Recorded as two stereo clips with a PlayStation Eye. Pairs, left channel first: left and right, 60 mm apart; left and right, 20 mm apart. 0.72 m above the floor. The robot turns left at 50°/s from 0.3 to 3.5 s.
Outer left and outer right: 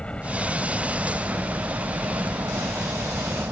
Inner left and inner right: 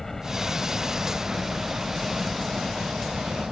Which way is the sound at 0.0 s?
20° left.